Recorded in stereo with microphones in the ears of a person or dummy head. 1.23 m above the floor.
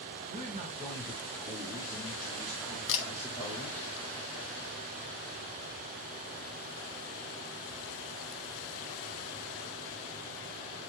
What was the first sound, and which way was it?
A man speaking, 40° right (ahead or behind).